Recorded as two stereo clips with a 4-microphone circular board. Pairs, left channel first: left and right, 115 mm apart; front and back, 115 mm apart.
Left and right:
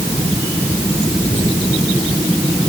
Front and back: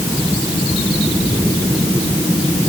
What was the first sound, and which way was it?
Only background noise.